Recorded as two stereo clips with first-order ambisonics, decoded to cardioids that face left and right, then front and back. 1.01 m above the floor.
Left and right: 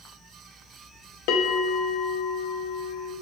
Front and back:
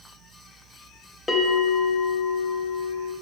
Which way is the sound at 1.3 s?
80° left.